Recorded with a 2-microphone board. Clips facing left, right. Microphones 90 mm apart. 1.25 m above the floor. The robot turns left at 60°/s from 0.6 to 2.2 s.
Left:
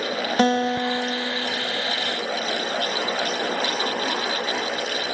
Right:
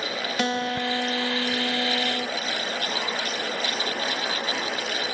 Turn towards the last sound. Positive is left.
turn(degrees=-60)